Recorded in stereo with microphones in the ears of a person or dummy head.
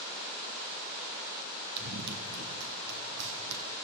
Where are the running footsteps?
55° right (ahead or behind), 2.5 m; by 3.7 s 65° right (ahead or behind), 3.5 m.